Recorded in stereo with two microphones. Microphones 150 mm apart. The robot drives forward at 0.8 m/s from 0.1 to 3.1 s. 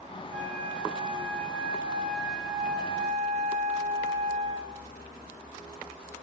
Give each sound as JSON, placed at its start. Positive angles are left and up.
{"t": 0.3, "sound": "a flute", "side_deg": -50, "distance_m": 1.6}